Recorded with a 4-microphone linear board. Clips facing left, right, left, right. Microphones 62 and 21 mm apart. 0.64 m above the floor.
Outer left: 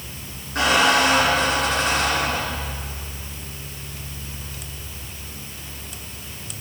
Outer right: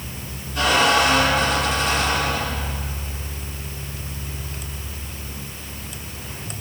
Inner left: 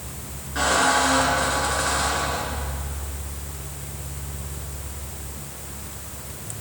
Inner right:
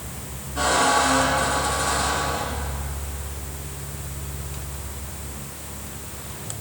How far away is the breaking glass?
I don't hear breaking glass.